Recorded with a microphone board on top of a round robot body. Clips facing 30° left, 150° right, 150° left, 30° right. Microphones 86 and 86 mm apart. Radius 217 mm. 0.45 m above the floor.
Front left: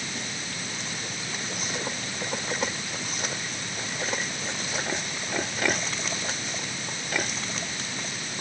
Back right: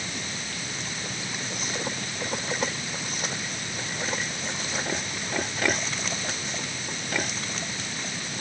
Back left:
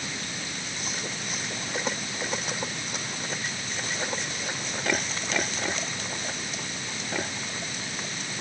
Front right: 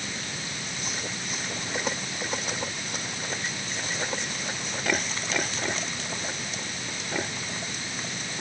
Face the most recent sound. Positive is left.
No sound to turn to.